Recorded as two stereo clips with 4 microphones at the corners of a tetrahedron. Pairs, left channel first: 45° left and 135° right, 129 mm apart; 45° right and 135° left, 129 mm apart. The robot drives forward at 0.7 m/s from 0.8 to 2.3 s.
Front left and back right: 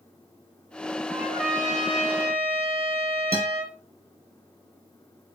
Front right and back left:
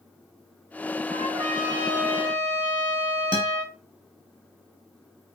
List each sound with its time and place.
1.1 s a trumpet: 130° left, 3.5 m; by 3.8 s 140° left, 4 m
3.3 s a guitar: 85° left, 3 m